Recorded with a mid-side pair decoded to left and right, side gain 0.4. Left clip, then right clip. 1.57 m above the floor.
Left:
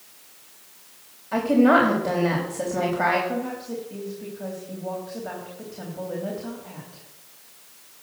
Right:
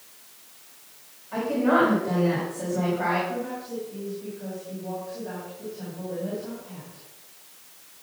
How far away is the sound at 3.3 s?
About 3.5 m.